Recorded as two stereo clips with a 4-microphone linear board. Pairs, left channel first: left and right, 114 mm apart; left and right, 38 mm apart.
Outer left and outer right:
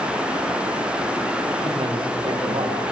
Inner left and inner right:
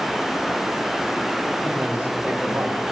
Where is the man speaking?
45° right (ahead or behind), 3 m; by 2.8 s 50° right (ahead or behind), 4 m.